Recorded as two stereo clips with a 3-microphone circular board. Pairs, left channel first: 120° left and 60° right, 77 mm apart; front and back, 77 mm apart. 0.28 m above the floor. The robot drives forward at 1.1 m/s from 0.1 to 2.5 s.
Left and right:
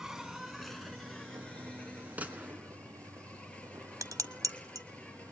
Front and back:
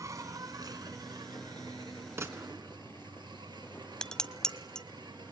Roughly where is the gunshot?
Behind right.